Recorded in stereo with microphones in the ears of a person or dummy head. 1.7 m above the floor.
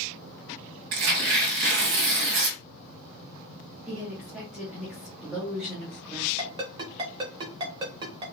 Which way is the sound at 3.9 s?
5° left (ahead or behind).